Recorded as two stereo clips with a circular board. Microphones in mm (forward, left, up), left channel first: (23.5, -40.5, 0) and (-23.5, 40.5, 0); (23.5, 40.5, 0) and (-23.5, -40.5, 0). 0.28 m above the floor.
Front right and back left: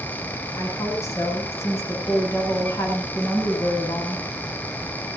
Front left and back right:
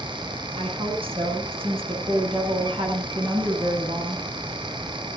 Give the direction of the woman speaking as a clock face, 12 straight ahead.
4 o'clock.